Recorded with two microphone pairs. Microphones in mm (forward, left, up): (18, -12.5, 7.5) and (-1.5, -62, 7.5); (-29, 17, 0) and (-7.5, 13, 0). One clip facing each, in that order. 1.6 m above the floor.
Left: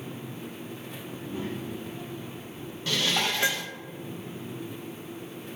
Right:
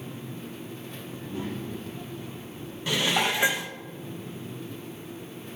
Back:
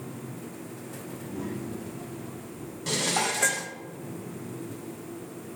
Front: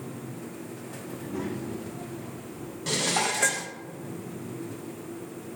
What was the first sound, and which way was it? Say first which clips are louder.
A child speaking: even, front 2 dB; 5° right.